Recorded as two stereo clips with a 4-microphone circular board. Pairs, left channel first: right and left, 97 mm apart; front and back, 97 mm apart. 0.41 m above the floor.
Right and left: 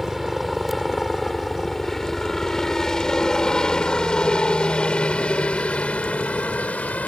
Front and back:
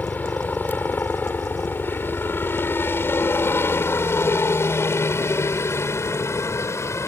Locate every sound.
0.0 s a helicopter: 5° left; by 7.1 s 30° right